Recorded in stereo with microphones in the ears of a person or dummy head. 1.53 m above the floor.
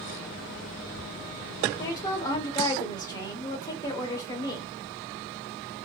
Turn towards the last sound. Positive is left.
turn(degrees=20)  # may be behind; listen again after turning